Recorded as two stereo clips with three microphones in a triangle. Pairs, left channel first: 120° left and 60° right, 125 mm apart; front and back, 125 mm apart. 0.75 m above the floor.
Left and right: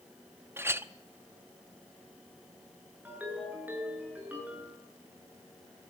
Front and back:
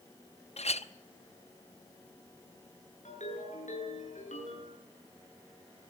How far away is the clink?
About 0.9 m.